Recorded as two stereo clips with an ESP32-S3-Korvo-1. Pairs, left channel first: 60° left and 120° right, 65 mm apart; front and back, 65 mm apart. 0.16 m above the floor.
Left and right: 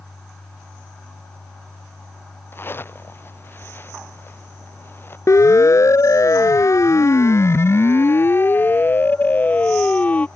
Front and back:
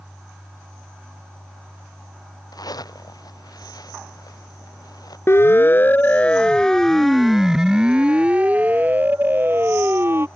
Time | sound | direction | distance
2.5 | a zipper | 5° left | ?
5.3 | a siren | 35° left | ?